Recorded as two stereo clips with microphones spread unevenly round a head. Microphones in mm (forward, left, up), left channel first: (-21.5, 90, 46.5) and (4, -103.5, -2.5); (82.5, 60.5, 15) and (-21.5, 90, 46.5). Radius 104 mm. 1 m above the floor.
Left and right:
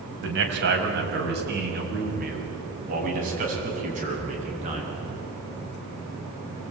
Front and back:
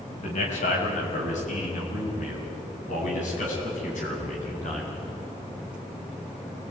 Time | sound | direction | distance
0.2 | a man speaking | 50° right | 5.5 m